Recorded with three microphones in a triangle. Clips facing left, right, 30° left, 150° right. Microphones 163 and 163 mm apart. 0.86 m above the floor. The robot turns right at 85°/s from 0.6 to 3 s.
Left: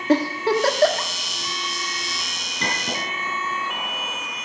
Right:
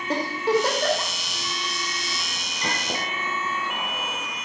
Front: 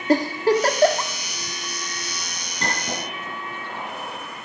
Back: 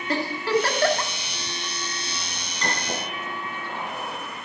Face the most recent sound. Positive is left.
turn(degrees=100)